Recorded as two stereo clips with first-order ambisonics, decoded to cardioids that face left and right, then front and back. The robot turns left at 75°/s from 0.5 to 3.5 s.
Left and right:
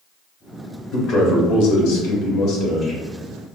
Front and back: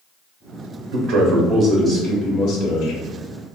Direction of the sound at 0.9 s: 155° left.